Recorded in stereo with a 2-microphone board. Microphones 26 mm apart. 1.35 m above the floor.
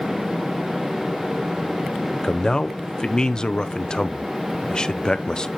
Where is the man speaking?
25° left (ahead or behind), 0.6 m.